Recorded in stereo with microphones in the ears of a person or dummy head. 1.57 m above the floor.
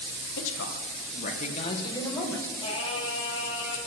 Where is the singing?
30° left (ahead or behind), 2.5 m.